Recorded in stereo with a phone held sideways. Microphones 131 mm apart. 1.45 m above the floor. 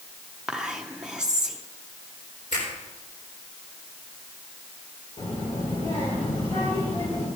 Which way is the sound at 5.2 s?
55° left (ahead or behind).